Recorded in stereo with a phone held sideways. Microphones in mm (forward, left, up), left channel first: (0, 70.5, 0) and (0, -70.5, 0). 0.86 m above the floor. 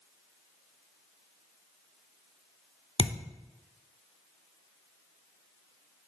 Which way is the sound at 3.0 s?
45° left (ahead or behind).